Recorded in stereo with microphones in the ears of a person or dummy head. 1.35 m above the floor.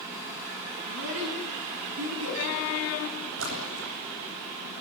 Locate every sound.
0.9 s a child speaking: 75° right (ahead or behind), 7.5 m; by 2.4 s 85° right, 8.5 m
3.4 s a splash: 75° right (ahead or behind), 9 m